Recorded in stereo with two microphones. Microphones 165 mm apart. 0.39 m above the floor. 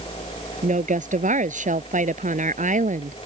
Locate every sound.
0.6 s a woman speaking: 55° right (ahead or behind)